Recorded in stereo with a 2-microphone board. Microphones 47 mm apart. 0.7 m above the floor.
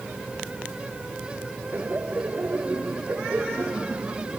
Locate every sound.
1.7 s laughter: 45° right (ahead or behind); by 4.4 s 55° right (ahead or behind)